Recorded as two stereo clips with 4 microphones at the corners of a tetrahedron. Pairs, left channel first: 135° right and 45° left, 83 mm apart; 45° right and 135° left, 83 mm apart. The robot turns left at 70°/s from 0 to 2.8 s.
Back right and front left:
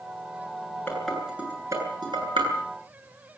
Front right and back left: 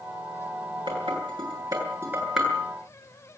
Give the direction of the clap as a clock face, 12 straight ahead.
No clap in this recording.